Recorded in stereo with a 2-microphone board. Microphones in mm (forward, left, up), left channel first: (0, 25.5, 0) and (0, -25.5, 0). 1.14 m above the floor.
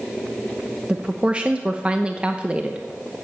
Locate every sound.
0.9 s a woman speaking: 20° right (ahead or behind), 0.8 m